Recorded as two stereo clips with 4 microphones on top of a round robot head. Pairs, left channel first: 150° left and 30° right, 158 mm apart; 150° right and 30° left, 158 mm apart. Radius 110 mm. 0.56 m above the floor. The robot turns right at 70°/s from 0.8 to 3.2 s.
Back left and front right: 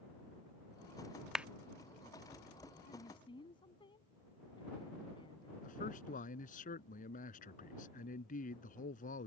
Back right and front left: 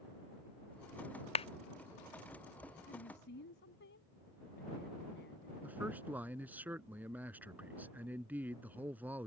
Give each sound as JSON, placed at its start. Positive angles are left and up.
{"t": 1.4, "sound": "a clap", "azimuth_deg": -115}
{"t": 2.8, "sound": "a woman speaking", "azimuth_deg": -175}
{"t": 5.6, "sound": "a man speaking", "azimuth_deg": 110}